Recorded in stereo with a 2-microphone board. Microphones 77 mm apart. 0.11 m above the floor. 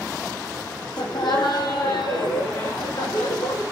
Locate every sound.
1.0 s laughter: 75° left (ahead or behind), 4.5 m